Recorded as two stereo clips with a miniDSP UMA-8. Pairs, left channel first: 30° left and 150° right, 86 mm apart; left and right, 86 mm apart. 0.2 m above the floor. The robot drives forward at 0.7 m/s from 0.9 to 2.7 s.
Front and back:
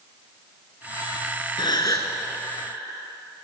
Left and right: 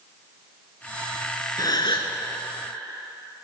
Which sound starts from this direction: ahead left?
A gasp, at 1.6 s.